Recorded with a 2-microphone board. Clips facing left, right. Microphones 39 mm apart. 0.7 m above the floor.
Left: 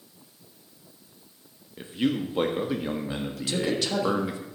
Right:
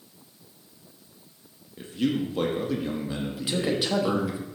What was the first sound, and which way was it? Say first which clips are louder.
A man speaking: even; 25° left (ahead or behind).